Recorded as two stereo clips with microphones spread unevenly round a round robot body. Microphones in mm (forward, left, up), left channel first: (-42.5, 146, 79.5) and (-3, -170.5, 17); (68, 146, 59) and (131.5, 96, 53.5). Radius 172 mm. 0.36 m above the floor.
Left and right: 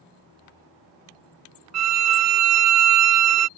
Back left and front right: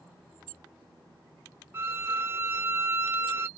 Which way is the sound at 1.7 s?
100° right.